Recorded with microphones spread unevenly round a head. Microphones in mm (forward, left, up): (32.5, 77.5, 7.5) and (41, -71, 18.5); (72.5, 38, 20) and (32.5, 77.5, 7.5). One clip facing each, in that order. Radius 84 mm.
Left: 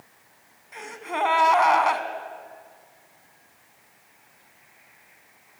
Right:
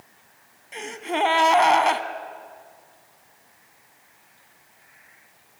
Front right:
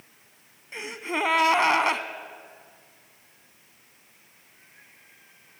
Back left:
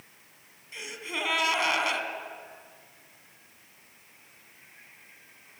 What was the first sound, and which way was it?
A gasp, 35° right.